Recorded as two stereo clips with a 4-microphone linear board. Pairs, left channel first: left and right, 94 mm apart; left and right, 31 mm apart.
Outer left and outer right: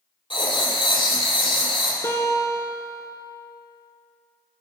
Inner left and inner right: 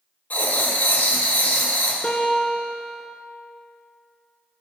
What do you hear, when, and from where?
0.3 s writing: 70° left (ahead or behind), 1.0 m
2.0 s a guitar: 30° left (ahead or behind), 0.7 m